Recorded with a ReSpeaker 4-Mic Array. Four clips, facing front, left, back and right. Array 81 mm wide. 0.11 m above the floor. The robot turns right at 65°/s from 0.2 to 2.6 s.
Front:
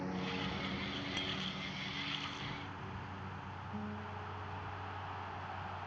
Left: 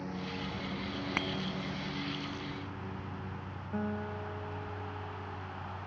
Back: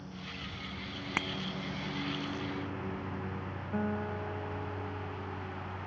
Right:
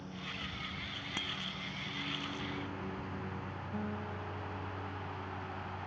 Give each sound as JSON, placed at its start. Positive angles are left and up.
{"t": 0.0, "sound": "a lawn mower", "azimuth_deg": 35}
{"t": 1.2, "sound": "a bicycle bell", "azimuth_deg": 155}
{"t": 3.7, "sound": "a guitar", "azimuth_deg": 160}